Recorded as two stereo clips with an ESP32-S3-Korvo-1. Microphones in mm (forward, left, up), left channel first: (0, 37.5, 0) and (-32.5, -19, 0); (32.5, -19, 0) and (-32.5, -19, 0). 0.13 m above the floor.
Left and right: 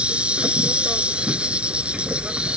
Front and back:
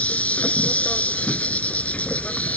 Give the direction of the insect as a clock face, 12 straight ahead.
2 o'clock.